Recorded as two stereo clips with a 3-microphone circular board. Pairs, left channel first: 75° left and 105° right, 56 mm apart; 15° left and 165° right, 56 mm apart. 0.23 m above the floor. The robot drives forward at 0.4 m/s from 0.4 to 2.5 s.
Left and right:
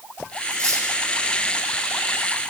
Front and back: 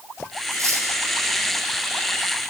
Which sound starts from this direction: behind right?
Cutlery clinking, at 0.5 s.